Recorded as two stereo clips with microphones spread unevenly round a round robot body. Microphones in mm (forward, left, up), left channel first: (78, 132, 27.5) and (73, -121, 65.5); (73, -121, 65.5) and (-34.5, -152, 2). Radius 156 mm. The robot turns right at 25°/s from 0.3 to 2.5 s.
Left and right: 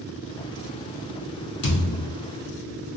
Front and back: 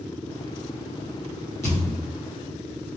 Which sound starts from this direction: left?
A thud, at 1.6 s.